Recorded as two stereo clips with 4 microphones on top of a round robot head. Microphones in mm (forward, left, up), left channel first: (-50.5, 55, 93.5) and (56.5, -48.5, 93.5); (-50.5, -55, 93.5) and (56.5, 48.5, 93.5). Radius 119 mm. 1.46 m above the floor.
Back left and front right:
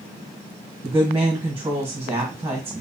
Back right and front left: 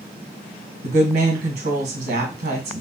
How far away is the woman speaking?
About 1.3 m.